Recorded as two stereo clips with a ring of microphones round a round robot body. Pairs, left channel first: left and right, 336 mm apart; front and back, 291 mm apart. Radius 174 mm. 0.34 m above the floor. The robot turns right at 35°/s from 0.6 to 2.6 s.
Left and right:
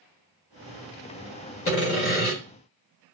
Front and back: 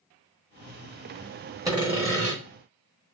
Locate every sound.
1.6 s sawing: 110° left, 1.8 m; by 2.4 s 135° left, 1.8 m